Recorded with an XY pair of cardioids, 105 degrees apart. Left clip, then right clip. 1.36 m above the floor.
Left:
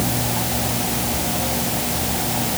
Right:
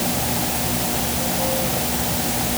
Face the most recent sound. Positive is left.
No sound to turn to.